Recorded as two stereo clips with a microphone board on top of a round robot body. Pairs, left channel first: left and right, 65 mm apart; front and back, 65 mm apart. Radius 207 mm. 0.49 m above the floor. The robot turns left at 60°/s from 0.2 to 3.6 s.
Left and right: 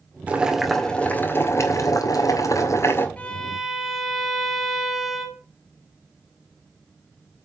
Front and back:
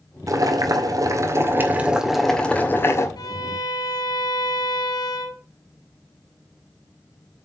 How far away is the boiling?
About 2 m.